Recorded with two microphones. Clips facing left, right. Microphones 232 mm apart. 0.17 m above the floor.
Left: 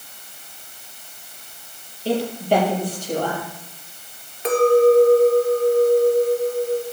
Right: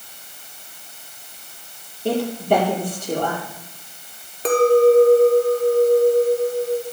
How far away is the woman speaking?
About 5 m.